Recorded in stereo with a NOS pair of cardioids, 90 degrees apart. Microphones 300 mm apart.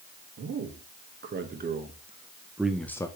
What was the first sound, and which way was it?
A man speaking, 45° right.